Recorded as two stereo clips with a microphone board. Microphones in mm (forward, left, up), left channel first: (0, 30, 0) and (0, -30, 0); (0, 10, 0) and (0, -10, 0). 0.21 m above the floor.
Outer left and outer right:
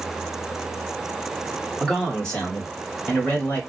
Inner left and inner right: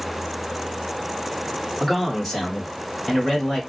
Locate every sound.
1.8 s a man speaking: 5° left (ahead or behind), 1.3 m; by 3.6 s 30° left (ahead or behind), 1.4 m